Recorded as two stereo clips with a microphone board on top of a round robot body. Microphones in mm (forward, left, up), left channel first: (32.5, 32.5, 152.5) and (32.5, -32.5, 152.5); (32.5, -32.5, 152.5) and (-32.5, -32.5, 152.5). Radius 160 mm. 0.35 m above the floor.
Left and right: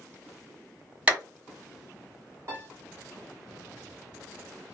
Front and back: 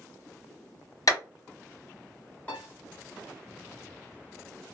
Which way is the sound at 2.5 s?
60° right.